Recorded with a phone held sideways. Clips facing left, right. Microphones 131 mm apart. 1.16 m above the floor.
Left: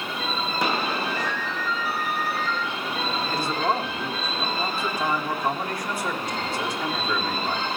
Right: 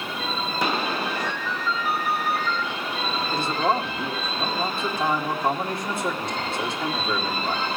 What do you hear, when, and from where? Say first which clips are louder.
1.1 s a ringtone: even; 50° right (ahead or behind), 9 m
3.3 s a man speaking: right 2 dB; 20° right (ahead or behind), 1.9 m